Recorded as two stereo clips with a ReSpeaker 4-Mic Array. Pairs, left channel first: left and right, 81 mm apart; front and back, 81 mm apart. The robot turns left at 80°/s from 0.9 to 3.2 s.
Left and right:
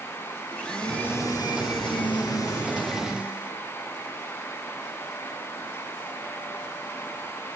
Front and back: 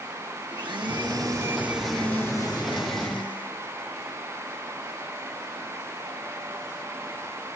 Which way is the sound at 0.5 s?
170° left.